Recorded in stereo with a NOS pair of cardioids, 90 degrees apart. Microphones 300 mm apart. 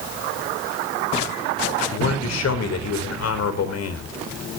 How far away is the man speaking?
About 4 m.